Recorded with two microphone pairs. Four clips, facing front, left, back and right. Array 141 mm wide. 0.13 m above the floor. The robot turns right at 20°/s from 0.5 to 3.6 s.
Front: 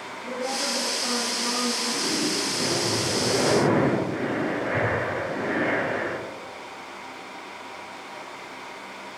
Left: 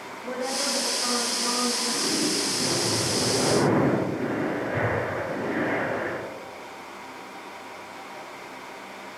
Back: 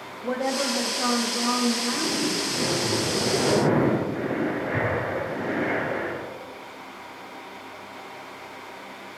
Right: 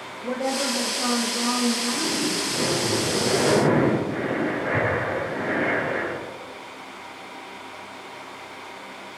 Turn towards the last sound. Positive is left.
turn(degrees=-70)